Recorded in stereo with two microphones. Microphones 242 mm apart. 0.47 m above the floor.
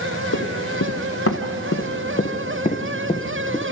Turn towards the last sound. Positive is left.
turn(degrees=10)  # may be behind; listen again after turning